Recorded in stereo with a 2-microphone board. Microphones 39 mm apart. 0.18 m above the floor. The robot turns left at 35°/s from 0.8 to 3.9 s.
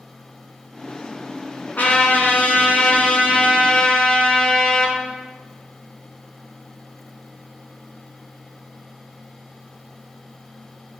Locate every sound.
1.8 s a trumpet: 110° left, 1.5 m; by 5.0 s 35° left, 1.5 m